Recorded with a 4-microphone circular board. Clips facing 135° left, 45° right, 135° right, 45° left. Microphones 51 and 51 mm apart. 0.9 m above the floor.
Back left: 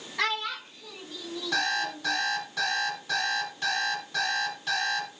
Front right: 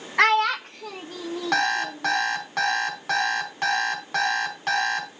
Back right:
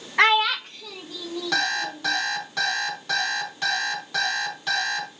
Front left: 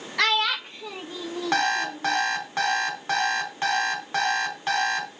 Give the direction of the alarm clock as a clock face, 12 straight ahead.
12 o'clock.